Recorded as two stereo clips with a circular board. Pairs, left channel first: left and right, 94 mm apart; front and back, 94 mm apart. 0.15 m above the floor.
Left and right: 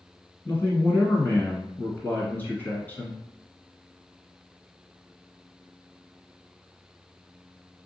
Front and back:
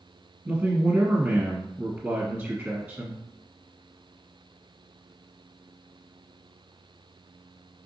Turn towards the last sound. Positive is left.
turn(degrees=125)